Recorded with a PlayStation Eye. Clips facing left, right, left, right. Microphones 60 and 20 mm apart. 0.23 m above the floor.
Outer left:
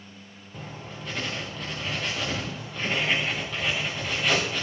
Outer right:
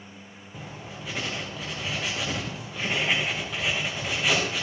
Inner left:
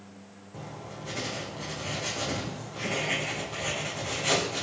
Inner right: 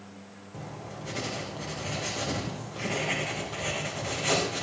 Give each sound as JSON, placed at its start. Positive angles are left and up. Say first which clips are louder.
{"t": 0.5, "sound": "writing", "louder": "outer left 1 dB, even", "side_deg": -5, "distance_m": 5.0}